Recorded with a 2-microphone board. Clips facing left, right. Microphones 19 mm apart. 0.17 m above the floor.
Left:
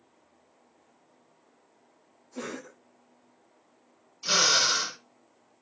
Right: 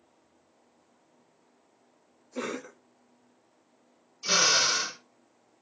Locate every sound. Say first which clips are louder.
2.4 s a cough: right 3 dB; 25° right (ahead or behind), 1.1 m
4.2 s a drill: left 1 dB; 10° left (ahead or behind), 2 m